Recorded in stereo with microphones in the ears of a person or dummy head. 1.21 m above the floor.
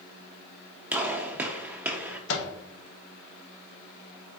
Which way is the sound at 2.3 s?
65° left (ahead or behind).